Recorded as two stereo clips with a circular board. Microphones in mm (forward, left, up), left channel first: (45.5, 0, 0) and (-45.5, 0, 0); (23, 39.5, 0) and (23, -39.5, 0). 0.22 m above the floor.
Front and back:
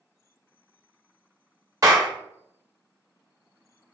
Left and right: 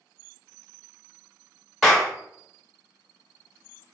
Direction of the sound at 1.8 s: Straight behind.